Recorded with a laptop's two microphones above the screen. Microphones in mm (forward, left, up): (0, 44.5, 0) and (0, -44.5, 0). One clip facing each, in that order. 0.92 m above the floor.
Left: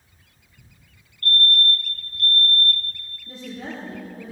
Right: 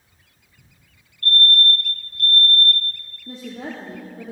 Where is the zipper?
I don't hear a zipper.